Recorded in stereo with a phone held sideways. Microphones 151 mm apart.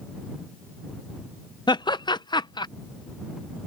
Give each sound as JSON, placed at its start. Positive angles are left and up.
{"t": 1.7, "sound": "laughter", "side_deg": 30}